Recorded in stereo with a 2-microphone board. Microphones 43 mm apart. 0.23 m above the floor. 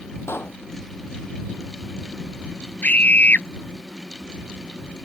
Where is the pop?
75° left (ahead or behind).